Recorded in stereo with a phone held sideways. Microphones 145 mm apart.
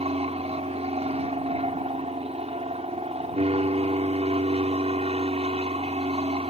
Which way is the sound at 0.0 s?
45° right (ahead or behind).